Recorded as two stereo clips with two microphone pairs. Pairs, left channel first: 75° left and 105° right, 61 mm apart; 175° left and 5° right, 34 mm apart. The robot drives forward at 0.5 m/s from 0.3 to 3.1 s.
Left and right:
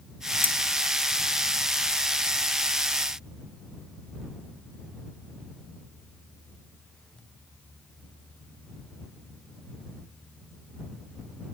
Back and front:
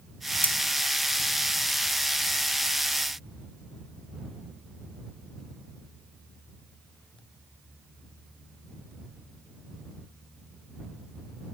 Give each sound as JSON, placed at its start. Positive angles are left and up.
{"t": 0.4, "sound": "cutlery clinking", "azimuth_deg": 140}